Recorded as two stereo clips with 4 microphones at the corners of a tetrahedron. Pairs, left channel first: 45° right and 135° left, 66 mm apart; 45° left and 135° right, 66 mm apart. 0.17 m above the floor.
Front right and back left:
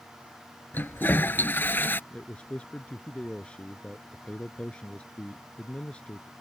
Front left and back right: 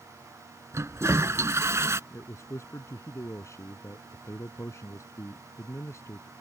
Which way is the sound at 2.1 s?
20° left.